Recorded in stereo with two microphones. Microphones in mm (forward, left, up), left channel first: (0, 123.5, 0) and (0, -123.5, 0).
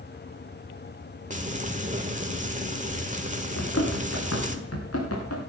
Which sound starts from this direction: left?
Running footsteps, at 3.6 s.